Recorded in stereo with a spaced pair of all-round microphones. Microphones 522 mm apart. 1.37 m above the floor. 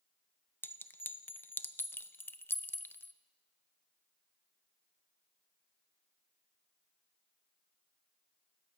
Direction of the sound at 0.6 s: 5° left (ahead or behind).